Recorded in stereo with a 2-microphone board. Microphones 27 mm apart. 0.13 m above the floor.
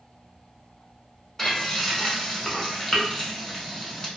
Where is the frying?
10° left (ahead or behind), 0.9 m.